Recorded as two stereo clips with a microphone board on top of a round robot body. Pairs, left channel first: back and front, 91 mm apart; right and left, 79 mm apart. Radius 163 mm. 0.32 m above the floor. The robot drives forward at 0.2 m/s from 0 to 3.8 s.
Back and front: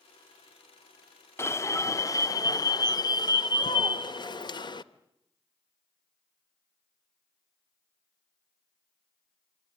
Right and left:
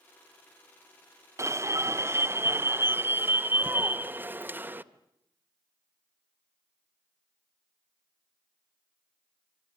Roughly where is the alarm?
Behind left.